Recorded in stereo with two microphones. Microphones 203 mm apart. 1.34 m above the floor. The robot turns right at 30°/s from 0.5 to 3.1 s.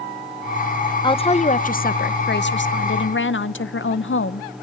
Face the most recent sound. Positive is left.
turn(degrees=85)